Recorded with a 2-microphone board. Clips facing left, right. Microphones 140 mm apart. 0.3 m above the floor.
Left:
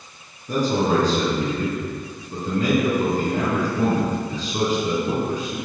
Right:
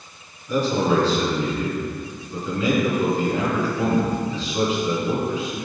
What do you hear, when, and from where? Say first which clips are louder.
0.5 s a man speaking: even; 45° left (ahead or behind), 3.5 m